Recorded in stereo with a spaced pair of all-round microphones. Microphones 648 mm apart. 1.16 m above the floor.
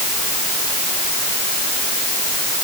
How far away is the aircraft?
I don't hear an aircraft.